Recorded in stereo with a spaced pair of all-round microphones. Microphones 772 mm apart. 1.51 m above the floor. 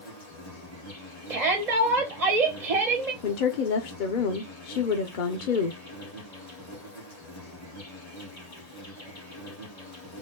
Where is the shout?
55° right (ahead or behind), 1.1 m.